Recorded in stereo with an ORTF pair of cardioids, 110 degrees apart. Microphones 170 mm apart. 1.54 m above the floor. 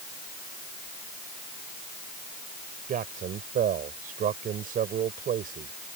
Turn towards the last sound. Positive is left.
turn(degrees=-55)